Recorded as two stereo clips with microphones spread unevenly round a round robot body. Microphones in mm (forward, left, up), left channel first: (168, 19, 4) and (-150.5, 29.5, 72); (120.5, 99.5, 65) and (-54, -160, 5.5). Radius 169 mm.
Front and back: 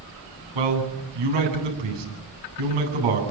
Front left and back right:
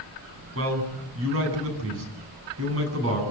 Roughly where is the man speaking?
Behind.